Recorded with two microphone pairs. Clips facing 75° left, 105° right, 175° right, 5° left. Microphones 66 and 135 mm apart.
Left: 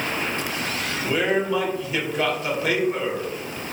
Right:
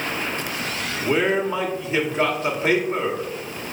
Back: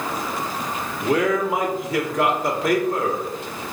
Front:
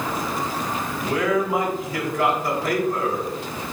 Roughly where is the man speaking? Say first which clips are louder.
Right 2 dB, back 2 dB; behind.